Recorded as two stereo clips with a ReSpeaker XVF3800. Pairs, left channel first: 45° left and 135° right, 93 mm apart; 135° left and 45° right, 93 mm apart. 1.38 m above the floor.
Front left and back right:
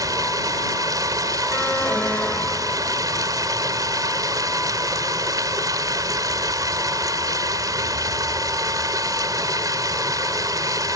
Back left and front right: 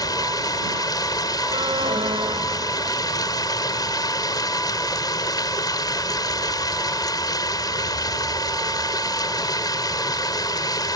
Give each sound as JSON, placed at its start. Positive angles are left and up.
{"t": 0.0, "sound": "running water", "azimuth_deg": 175}
{"t": 1.5, "sound": "an alarm", "azimuth_deg": -25}